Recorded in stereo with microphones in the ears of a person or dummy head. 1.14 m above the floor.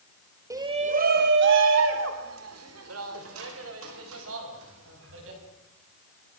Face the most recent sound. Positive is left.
turn(degrees=-75)  # may be behind; listen again after turning